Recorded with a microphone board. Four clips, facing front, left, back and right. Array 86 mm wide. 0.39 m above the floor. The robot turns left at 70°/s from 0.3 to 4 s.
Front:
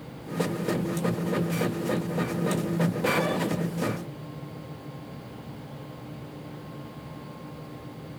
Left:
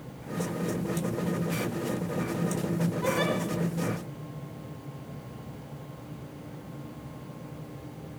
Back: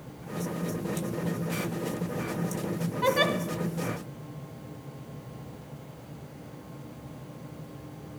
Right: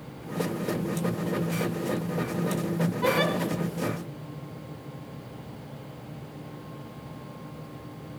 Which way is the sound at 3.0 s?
155° right.